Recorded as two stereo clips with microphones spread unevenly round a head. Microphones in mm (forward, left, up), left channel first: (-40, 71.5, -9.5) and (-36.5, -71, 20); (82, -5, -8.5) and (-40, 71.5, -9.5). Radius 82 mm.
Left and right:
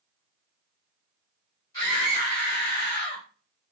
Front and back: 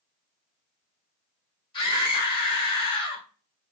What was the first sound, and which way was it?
A scream, 20° left.